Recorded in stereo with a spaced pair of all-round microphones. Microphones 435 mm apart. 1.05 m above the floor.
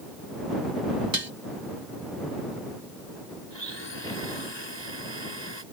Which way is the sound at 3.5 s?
75° left (ahead or behind).